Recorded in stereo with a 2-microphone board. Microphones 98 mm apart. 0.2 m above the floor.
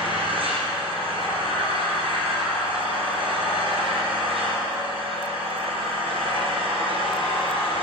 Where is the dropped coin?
No dropped coin in this recording.